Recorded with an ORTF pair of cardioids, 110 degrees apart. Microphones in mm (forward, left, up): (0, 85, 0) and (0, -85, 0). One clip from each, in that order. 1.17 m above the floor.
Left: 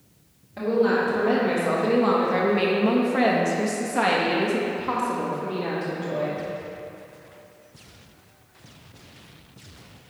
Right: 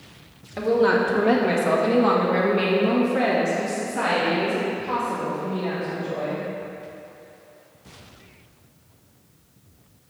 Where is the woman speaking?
30° right, 1.9 m; by 6.4 s 75° left, 2.5 m.